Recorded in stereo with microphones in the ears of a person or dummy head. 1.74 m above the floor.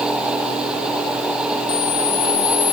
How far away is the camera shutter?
About 1.0 m.